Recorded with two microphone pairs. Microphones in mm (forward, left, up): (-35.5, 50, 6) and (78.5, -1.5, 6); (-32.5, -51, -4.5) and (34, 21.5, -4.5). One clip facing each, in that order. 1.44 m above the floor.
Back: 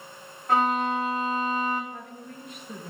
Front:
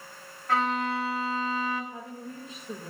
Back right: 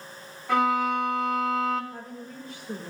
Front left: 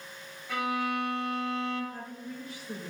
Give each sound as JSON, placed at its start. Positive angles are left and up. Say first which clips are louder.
{"t": 0.5, "sound": "a violin", "louder": "back 3 dB, back right 7 dB", "azimuth_deg": -135, "distance_m": 2.5}
{"t": 1.9, "sound": "a woman speaking", "louder": "front 1 dB, back right 1 dB", "azimuth_deg": -75, "distance_m": 1.7}